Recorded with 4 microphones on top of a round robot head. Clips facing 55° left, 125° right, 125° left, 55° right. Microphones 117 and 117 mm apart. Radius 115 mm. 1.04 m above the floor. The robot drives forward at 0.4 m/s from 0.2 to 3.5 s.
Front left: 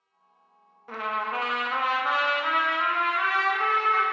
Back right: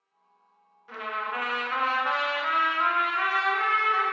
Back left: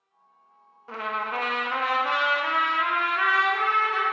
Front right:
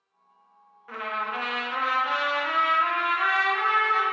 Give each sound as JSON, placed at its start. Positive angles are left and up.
{"t": 0.9, "sound": "a trumpet", "azimuth_deg": 75, "distance_m": 0.6}